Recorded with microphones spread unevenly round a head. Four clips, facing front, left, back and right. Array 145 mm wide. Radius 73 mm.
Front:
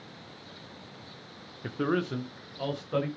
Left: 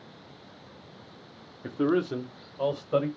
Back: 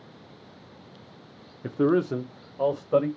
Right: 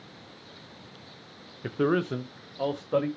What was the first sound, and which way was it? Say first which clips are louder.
A man speaking: even, back 7 dB; 155° right.